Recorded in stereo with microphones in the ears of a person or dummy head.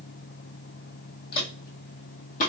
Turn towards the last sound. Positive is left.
turn(degrees=40)  # may be behind; listen again after turning